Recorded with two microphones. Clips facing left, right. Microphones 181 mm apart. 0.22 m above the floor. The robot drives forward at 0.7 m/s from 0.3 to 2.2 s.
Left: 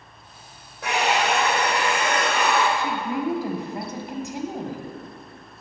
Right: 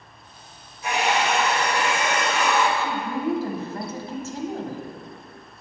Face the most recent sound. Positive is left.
turn(degrees=15)  # may be behind; listen again after turning